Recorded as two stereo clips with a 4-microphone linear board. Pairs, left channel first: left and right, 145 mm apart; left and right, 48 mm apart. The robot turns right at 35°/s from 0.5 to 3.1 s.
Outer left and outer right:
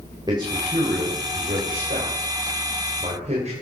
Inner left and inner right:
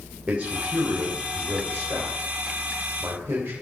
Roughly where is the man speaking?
Right.